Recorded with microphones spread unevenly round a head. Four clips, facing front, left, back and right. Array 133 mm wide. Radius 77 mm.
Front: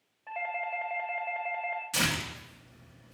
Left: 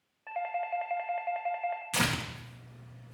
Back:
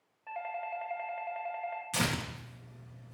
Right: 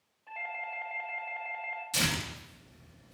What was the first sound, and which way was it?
A doorbell, 75° left.